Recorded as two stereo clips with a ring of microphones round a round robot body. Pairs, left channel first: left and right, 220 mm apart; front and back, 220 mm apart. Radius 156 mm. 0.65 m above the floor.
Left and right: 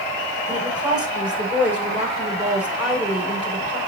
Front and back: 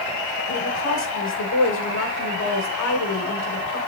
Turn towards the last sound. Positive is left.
turn(degrees=-5)